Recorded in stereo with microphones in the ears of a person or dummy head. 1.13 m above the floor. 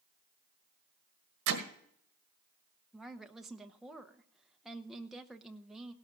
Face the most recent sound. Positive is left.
turn(degrees=-10)  # may be behind; listen again after turning